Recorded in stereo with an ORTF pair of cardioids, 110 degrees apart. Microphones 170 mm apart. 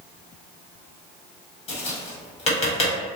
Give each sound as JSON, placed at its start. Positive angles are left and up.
{"t": 1.7, "sound": "tapping", "azimuth_deg": 40, "distance_m": 1.5}